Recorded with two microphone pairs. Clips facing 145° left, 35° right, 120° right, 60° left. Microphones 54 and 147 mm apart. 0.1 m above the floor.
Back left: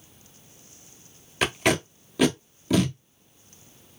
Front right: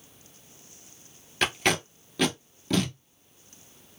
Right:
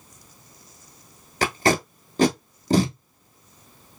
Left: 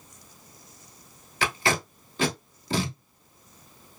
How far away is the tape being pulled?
About 0.9 m.